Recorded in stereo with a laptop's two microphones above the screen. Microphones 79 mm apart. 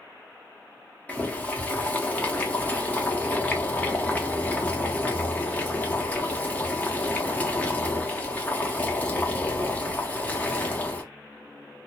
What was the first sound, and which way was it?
Boiling, 20° left (ahead or behind).